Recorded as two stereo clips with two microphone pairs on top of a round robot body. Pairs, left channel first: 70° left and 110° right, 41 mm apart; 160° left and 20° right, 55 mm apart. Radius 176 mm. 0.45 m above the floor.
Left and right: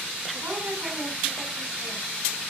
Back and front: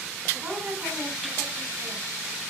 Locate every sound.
0.3 s a woman speaking: 80° right, 5.5 m; by 2.0 s 75° right, 6 m